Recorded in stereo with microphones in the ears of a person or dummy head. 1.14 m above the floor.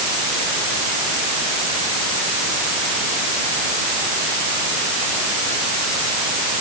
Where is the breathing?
No breathing in this recording.